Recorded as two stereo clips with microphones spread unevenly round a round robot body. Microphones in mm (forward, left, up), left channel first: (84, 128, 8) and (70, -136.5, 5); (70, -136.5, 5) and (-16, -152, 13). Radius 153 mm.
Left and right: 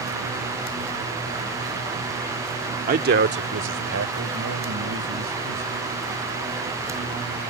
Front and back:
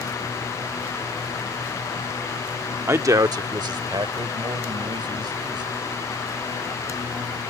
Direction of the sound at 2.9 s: 125° right.